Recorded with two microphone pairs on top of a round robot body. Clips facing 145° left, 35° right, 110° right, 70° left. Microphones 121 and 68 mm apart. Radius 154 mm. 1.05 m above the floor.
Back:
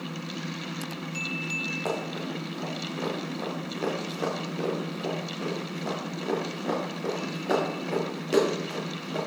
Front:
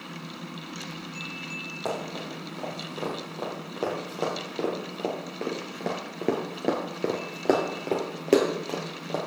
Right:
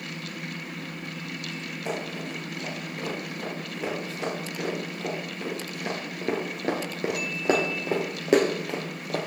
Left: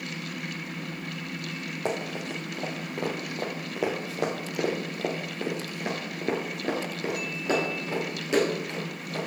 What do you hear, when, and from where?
1.9 s running footsteps: 55° left, 2.5 m; by 9.3 s 75° right, 2 m